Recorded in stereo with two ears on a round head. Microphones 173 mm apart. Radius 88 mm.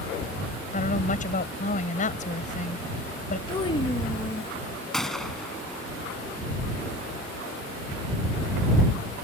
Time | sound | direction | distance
0.7 | a woman speaking | 45° left (ahead or behind) | ?
3.5 | a child speaking | 25° left (ahead or behind) | ?
4.9 | a gunshot | 5° left (ahead or behind) | ?